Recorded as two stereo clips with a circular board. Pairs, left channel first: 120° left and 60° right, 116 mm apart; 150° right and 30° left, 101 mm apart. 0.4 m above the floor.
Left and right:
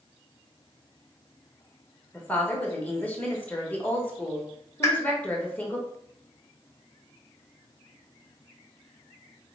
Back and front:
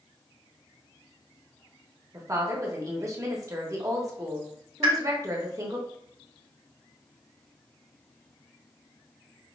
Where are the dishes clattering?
I don't hear dishes clattering.